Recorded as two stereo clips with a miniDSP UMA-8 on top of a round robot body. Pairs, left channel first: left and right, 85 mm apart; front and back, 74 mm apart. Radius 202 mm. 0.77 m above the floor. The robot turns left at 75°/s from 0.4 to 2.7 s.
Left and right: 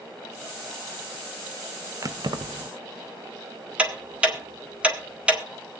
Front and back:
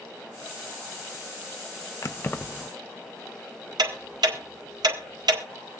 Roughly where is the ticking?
Behind.